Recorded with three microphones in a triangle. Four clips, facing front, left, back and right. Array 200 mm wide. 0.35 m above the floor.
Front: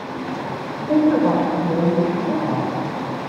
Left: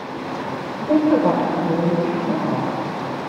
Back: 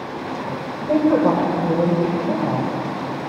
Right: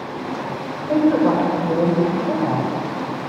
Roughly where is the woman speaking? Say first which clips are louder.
Even, even; behind left.